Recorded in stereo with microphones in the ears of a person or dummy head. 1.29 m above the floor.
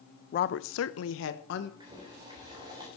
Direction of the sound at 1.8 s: 25° right (ahead or behind).